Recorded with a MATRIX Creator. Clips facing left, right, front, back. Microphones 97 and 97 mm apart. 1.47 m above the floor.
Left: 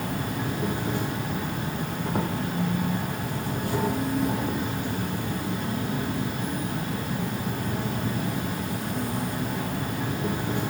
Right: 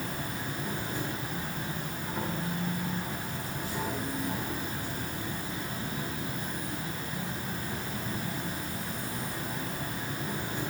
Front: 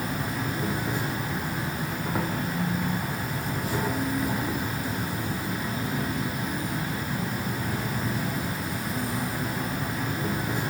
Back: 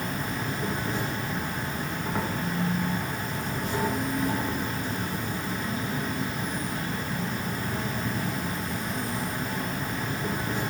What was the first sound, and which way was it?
An insect, 85° left.